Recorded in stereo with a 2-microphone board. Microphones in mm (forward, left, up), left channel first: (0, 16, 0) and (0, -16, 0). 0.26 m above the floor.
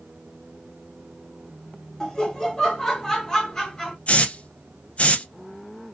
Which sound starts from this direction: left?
A hiss, at 4.1 s.